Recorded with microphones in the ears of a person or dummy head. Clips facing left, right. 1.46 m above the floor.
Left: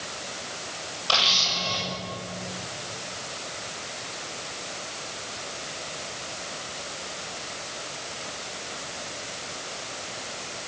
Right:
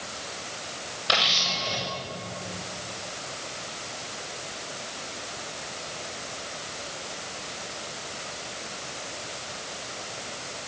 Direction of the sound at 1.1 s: 25° right (ahead or behind).